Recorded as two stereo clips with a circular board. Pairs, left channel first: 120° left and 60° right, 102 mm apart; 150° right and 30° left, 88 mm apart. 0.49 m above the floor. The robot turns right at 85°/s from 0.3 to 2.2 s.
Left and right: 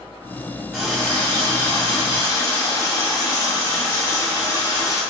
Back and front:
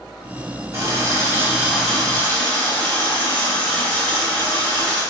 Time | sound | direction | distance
0.7 | a running tap | 20° left | 0.7 m